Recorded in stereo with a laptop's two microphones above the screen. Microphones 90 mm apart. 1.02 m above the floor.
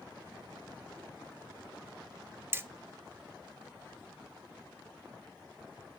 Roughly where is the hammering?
Right.